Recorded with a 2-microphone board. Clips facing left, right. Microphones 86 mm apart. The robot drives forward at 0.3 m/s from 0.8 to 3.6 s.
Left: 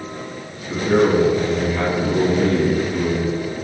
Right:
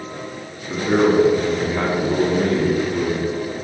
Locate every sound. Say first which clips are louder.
0.7 s a man speaking: even; 15° right (ahead or behind), 1.2 m